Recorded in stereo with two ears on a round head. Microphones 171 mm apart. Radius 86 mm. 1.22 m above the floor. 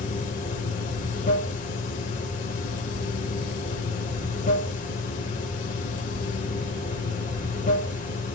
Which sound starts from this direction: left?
Running water, at 0.0 s.